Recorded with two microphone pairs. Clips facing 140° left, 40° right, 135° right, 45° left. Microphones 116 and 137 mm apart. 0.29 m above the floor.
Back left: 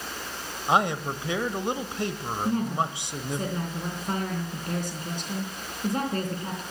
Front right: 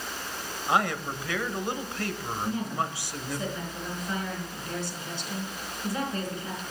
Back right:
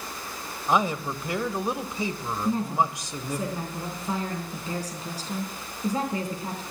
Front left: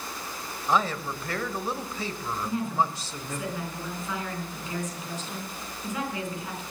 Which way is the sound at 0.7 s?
170° left.